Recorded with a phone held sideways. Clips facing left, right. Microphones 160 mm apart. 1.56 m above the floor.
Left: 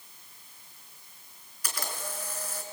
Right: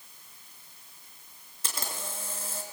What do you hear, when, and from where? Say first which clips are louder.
1.6 s a camera shutter: left 1 dB; 25° right (ahead or behind), 3.5 m